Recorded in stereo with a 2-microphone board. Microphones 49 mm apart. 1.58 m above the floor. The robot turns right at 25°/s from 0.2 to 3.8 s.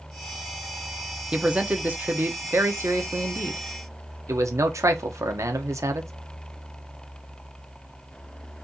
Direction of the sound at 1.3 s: 160° right.